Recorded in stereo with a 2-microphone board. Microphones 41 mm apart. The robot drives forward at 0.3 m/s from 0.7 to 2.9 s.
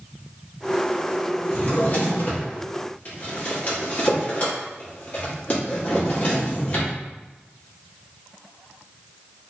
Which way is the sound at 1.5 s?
50° left (ahead or behind).